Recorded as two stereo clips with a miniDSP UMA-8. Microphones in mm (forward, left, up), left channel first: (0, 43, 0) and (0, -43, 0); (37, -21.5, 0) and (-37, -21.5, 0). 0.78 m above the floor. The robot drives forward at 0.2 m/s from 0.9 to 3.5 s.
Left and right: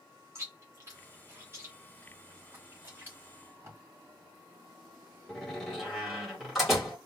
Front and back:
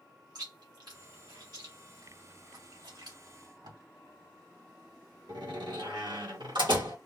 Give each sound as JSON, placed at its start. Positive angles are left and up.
{"t": 0.3, "sound": "chewing", "azimuth_deg": -150, "distance_m": 1.6}
{"t": 3.3, "sound": "tape being pulled", "azimuth_deg": -155, "distance_m": 3.0}
{"t": 5.3, "sound": "a door slam", "azimuth_deg": 180, "distance_m": 2.0}